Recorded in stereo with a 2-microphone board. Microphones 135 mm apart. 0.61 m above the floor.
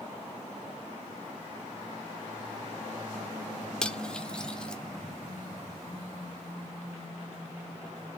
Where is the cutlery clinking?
5° left (ahead or behind), 0.9 m.